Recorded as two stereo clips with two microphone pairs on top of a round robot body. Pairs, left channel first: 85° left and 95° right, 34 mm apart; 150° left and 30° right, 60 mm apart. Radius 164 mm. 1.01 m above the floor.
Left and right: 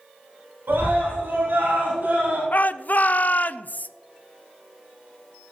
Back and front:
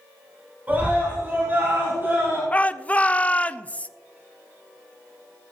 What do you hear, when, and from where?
0.7 s a scream: 95° right, 4.5 m; by 2.4 s 70° right, 3 m
2.5 s a shout: 95° left, 0.5 m